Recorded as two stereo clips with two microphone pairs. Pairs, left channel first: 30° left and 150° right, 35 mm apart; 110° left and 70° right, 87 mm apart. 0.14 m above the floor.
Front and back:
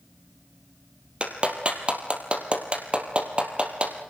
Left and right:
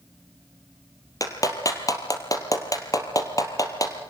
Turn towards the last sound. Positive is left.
turn(degrees=155)